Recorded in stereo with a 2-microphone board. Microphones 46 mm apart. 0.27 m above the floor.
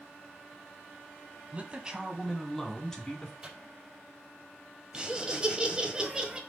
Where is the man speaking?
30° right (ahead or behind), 2 m; by 3.3 s 20° left (ahead or behind), 3 m.